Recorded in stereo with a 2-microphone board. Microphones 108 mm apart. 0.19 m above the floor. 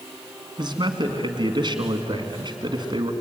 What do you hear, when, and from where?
0.6 s a man speaking: 45° right (ahead or behind), 2 m